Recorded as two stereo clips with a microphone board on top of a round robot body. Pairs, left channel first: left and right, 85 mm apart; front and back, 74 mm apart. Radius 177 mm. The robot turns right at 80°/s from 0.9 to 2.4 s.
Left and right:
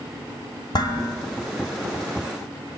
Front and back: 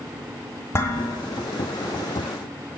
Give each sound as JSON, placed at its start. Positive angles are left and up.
{"t": 0.7, "sound": "dishes clattering", "azimuth_deg": 55, "distance_m": 2.0}